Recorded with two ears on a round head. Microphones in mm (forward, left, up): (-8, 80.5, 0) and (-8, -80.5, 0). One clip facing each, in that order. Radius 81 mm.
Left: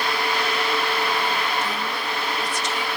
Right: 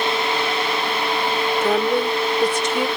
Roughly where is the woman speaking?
Right.